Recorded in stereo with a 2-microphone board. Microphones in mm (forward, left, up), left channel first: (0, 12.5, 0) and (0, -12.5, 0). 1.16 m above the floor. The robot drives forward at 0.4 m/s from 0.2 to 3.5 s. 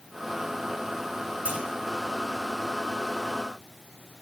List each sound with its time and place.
1.4 s a clunk: 85° right, 1.9 m